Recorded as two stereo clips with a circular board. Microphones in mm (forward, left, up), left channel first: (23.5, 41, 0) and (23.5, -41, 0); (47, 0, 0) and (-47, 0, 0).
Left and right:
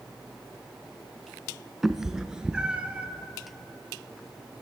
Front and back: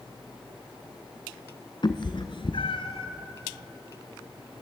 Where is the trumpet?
No trumpet in this recording.